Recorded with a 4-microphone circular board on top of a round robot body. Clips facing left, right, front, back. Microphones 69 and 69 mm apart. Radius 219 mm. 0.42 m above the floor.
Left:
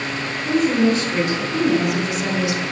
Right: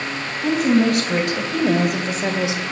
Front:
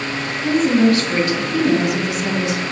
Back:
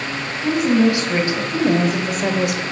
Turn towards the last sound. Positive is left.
turn(degrees=-160)